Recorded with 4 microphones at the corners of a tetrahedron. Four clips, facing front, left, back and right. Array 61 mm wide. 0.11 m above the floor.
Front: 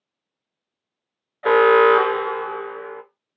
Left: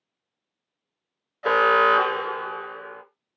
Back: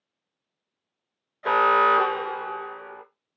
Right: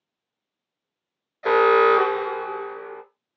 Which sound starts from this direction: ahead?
An alarm, at 1.4 s.